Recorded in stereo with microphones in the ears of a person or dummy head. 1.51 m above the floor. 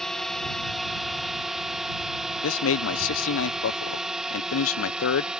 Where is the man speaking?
80° left.